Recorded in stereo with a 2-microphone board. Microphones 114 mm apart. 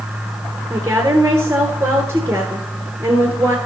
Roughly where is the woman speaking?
Right.